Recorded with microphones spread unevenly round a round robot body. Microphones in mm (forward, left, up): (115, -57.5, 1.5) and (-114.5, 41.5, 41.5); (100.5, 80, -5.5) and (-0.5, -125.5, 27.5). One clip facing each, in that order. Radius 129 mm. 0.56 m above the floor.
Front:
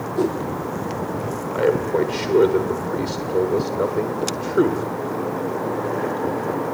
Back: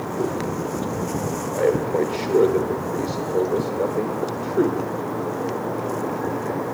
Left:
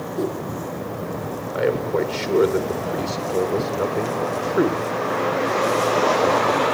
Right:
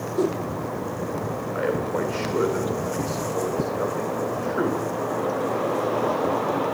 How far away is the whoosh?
About 6.5 m.